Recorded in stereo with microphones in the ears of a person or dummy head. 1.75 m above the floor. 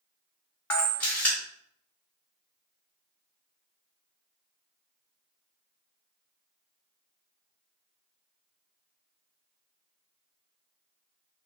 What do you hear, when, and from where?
0.7 s a camera shutter: 10° left (ahead or behind), 0.6 m